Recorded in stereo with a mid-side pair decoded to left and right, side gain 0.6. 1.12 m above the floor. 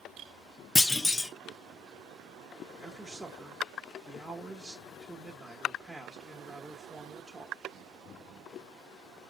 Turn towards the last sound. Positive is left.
turn(degrees=-10)